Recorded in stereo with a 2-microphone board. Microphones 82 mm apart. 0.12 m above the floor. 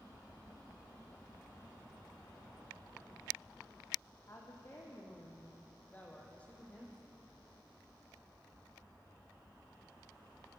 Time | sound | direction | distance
4.3 | a woman speaking | 35° left (ahead or behind) | 6.5 m